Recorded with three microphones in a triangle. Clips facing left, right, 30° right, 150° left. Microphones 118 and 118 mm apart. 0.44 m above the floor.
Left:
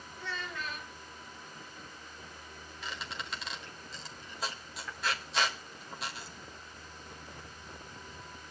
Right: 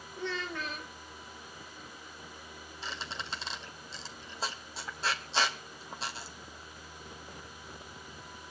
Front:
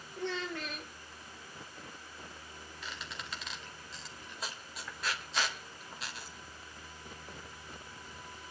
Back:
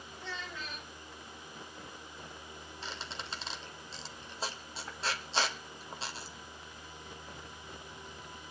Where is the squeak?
150° right, 1.9 m.